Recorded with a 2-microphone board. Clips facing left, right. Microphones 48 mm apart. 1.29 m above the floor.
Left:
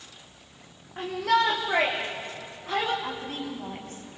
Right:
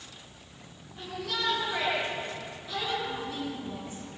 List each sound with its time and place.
1.0 s a shout: 85° left, 3 m; by 2.9 s 60° left (ahead or behind), 2.5 m
3.0 s a woman speaking: 70° left (ahead or behind), 7 m